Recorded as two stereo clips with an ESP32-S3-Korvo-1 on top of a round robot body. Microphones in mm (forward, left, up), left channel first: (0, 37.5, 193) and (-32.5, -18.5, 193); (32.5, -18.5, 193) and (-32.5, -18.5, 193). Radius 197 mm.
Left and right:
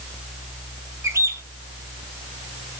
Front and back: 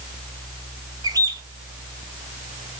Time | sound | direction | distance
1.0 | a bird | 165° right | 2.0 m